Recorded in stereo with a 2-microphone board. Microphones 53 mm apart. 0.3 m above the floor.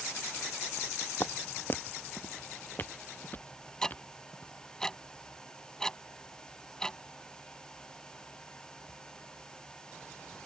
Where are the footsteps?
45° left (ahead or behind); by 4.6 s 30° left (ahead or behind).